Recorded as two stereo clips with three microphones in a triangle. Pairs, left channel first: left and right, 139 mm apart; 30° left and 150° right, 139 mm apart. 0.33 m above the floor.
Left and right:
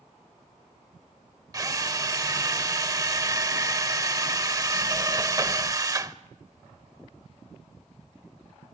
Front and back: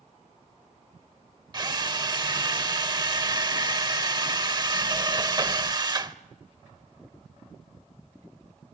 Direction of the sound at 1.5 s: 130° right.